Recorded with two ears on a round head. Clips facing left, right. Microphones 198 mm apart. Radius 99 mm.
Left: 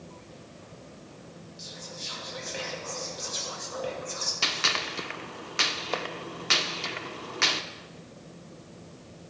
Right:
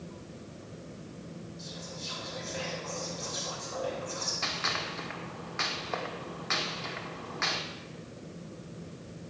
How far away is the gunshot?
About 0.6 m.